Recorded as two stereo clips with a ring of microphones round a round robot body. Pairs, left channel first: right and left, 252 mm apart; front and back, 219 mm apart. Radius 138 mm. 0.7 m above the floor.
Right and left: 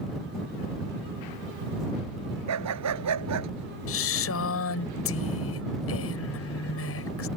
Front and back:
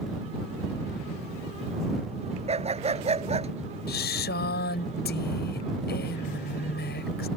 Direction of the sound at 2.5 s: 115° left.